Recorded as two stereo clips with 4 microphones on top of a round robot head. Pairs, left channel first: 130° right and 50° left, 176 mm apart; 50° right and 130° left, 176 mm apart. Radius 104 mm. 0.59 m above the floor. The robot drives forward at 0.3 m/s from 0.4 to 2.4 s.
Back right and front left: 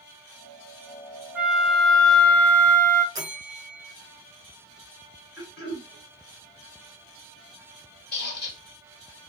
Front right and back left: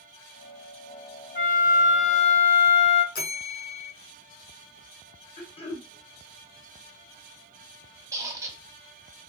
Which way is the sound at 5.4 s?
105° right.